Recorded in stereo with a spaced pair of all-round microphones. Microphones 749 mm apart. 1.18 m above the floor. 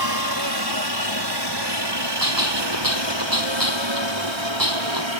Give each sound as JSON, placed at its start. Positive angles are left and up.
{"t": 0.0, "sound": "a helicopter", "side_deg": -30}
{"t": 2.2, "sound": "a gunshot", "side_deg": -25}